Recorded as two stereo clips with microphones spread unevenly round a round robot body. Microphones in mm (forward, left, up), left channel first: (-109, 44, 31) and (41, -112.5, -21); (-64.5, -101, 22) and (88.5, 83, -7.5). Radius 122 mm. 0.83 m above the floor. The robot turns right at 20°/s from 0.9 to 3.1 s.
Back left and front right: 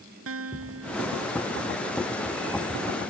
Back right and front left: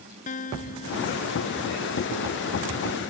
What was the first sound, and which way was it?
A guitar, 70° right.